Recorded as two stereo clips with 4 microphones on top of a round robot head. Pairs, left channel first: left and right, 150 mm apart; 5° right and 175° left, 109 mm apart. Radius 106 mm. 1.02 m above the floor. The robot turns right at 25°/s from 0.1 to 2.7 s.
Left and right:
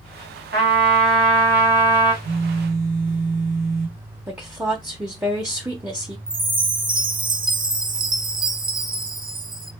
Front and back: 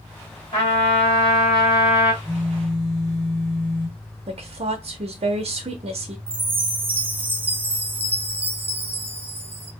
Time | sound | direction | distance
0.5 | a trumpet | 65° right | 1.4 m
2.2 | a phone buzzing | 140° right | 0.9 m
4.3 | a woman speaking | 170° right | 0.9 m
6.3 | a chime | 125° right | 0.7 m